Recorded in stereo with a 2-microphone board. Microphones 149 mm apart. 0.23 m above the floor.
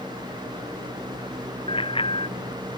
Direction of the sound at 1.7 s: 35° left (ahead or behind).